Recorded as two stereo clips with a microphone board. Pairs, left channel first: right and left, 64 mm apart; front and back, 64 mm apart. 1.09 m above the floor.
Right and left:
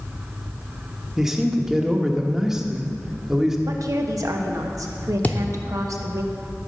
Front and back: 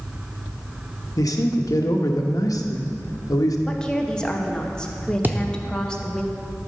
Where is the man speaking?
10° left, 1.1 m.